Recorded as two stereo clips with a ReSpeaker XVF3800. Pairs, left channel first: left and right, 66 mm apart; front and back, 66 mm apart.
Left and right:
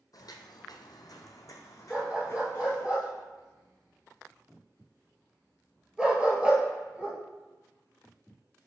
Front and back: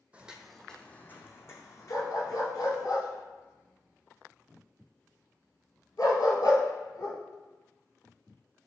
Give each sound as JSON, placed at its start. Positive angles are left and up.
{"t": 0.1, "sound": "footsteps", "azimuth_deg": 110, "distance_m": 0.5}
{"t": 1.9, "sound": "a dog barking", "azimuth_deg": -15, "distance_m": 1.3}